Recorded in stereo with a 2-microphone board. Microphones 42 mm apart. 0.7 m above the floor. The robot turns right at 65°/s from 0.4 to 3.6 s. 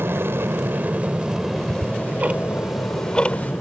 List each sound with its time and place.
0.0 s an aircraft: 75° right; by 3.6 s 130° left
1.6 s ticking: 80° right; by 3.5 s 45° left (ahead or behind)